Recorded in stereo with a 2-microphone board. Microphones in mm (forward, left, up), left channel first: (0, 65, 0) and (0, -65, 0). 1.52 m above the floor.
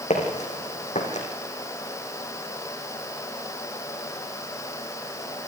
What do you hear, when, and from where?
0.1 s footsteps: 65° left (ahead or behind), 4.5 m